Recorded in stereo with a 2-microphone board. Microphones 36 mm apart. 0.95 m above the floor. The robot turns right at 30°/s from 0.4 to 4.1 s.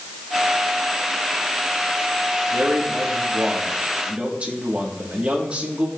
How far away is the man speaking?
About 1.9 m.